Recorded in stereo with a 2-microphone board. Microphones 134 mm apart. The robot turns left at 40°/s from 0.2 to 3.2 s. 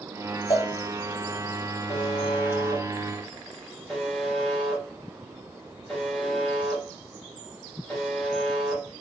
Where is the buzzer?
50° left (ahead or behind), 3 m; by 8.8 s centre (ahead or behind), 3 m.